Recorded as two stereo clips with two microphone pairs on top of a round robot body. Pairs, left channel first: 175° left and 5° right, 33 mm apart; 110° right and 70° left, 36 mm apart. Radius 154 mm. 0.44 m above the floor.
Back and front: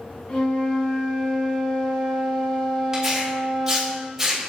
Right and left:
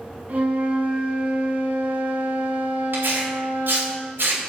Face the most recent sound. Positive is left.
turn(degrees=70)